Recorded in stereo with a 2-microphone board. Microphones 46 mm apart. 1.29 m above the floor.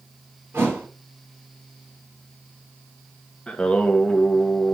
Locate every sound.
0.5 s a thud: 50° right (ahead or behind), 2.5 m
3.5 s singing: 20° left (ahead or behind), 1.0 m